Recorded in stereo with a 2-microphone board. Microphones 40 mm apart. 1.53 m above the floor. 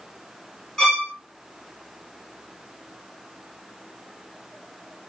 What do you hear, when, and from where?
0.8 s a violin: 10° left (ahead or behind), 2.5 m